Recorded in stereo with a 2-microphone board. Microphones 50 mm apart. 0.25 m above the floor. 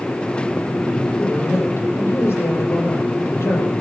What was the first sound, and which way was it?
A woman speaking, 65° left (ahead or behind).